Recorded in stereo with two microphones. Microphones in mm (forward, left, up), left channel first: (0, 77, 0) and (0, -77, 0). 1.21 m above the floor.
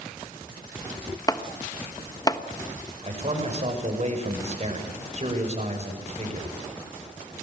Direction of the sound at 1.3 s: 25° left (ahead or behind).